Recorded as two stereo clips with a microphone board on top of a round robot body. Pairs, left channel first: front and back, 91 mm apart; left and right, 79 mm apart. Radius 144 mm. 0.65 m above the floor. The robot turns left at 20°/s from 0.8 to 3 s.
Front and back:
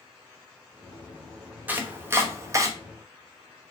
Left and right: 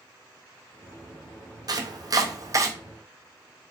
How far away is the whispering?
No whispering in this recording.